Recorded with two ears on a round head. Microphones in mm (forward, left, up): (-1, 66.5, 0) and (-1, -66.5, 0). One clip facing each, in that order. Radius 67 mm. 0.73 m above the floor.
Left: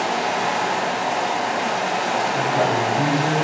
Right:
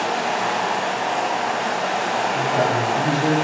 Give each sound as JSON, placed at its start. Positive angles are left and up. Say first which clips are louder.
{"t": 0.0, "sound": "running water", "louder": "even", "side_deg": 10, "distance_m": 0.8}
{"t": 2.3, "sound": "a man speaking", "louder": "even", "side_deg": -15, "distance_m": 1.3}